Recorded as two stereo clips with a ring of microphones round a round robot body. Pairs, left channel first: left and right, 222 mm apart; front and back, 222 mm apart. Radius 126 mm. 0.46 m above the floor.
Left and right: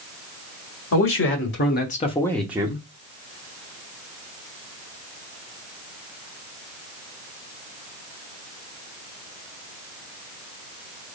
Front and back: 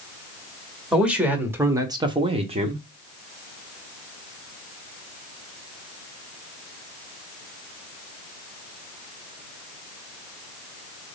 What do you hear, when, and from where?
0.9 s a man speaking: 95° left, 1.8 m; by 2.8 s 135° right, 1.0 m